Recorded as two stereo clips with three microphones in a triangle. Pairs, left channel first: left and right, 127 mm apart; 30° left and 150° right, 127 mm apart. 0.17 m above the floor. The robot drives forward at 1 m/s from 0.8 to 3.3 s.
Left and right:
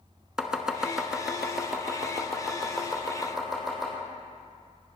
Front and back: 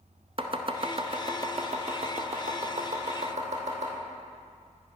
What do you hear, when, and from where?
0.4 s chopping: 175° right, 0.9 m; by 3.9 s straight behind, 3 m